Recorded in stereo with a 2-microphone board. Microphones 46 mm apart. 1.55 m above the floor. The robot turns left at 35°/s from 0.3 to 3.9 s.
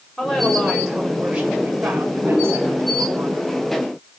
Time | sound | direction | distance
0.2 | a woman speaking | 10° left | 7.5 m